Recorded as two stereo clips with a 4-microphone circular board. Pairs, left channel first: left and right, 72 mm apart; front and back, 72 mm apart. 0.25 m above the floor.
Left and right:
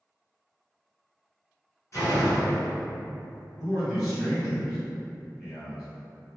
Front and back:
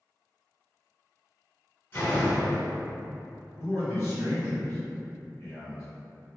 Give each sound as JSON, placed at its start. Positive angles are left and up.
{"t": 1.9, "sound": "a door slam", "azimuth_deg": 50, "distance_m": 1.7}
{"t": 3.6, "sound": "a man speaking", "azimuth_deg": -5, "distance_m": 1.8}